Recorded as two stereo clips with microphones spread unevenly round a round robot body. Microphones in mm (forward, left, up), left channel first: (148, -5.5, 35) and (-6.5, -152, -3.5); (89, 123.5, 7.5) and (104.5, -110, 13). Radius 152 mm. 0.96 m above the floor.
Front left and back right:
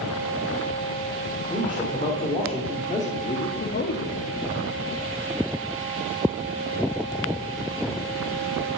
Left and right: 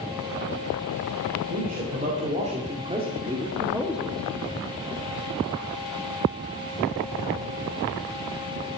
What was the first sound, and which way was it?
A man speaking, 30° right.